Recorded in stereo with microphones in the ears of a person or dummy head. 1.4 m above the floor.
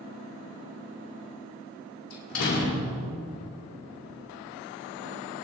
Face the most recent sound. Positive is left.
turn(degrees=65)  # may be behind; listen again after turning